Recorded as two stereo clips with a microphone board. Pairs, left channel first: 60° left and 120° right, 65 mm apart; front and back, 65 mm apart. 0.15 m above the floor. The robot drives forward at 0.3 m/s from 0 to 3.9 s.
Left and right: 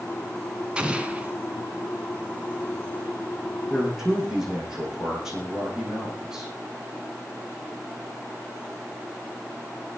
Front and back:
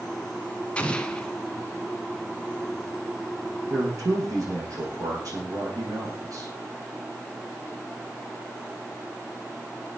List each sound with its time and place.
0.8 s an explosion: 55° right, 1.3 m; by 1.3 s 70° right, 1.3 m
3.7 s a man speaking: 160° left, 7 m